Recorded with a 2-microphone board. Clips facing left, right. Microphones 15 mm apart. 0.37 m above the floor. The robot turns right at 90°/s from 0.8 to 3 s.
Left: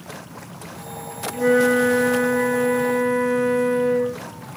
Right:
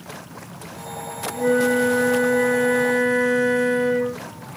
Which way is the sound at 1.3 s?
20° left (ahead or behind).